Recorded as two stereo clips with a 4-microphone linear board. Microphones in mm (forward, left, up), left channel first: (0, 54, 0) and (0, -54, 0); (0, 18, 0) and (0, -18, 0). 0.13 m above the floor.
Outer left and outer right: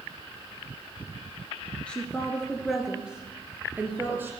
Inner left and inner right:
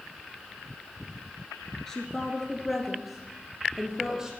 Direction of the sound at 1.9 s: 10° left (ahead or behind).